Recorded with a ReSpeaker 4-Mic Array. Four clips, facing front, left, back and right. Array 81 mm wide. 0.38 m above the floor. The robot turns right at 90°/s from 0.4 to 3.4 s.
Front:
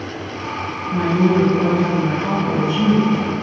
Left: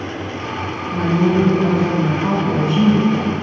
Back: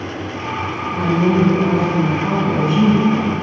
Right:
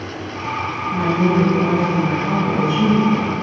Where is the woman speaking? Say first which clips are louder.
Left 1 dB, even; 25° right, 3 m; by 3.3 s 165° right, 3 m.